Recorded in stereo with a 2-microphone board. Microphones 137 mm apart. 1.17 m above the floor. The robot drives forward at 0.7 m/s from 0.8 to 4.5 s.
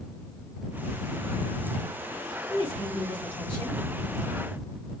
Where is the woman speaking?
50° left (ahead or behind), 1.7 m; by 3.8 s 35° left (ahead or behind), 2.5 m.